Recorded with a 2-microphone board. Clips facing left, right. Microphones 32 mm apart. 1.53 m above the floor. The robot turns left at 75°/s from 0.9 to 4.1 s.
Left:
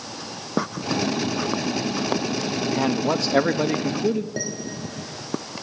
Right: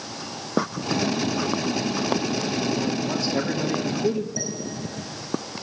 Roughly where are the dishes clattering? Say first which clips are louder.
Left 1 dB; left.